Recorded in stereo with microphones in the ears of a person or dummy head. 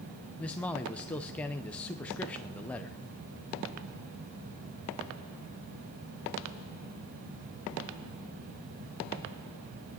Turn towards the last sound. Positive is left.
turn(degrees=10)  # may be behind; listen again after turning